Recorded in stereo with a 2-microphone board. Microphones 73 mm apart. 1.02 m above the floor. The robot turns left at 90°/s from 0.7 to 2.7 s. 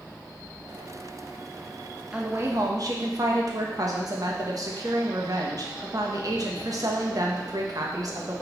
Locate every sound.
2.1 s a woman speaking: 15° right, 1.3 m; by 8.4 s 65° right, 1.3 m